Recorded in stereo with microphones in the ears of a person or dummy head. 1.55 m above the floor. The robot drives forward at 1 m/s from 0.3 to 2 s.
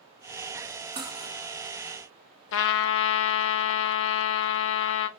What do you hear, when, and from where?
1.0 s cutlery clinking: 25° right (ahead or behind), 1.0 m; by 1.4 s 15° right (ahead or behind), 1.3 m
2.5 s a trumpet: 65° left (ahead or behind), 0.5 m